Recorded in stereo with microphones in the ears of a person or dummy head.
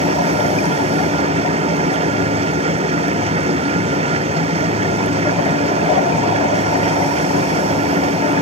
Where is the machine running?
30° right (ahead or behind).